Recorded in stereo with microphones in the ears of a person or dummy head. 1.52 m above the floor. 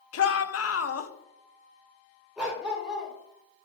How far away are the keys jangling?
No keys jangling in this recording.